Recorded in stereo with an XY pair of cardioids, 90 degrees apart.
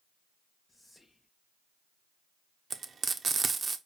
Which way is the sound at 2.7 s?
45° right.